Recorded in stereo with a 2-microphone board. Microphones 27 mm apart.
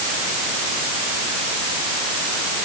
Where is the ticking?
I don't hear ticking.